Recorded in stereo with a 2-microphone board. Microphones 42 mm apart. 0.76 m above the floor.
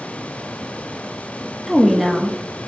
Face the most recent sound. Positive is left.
turn(degrees=0)  # may be behind; listen again after turning